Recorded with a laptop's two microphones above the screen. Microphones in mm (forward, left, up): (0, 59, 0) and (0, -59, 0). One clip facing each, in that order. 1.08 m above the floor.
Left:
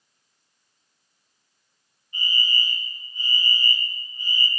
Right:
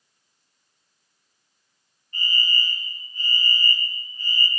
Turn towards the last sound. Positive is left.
turn(degrees=15)  # may be behind; listen again after turning